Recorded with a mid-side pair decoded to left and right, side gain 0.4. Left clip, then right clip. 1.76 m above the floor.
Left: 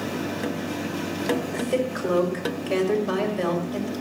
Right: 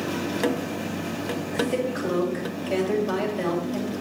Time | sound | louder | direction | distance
1.5 | a woman speaking | even | 35° left | 7 m